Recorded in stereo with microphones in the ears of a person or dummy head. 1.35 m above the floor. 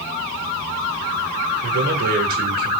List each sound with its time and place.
1.6 s a man speaking: 50° right (ahead or behind), 1.7 m